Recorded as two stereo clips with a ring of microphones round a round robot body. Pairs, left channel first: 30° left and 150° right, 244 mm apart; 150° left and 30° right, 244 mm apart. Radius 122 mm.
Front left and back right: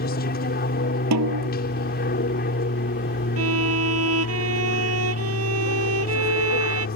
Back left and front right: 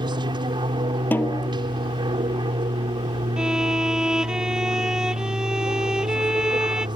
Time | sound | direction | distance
0.0 | an aircraft | 30° left | ?
1.1 | a snare drum | 125° right | ?
3.4 | a violin | 115° right | ?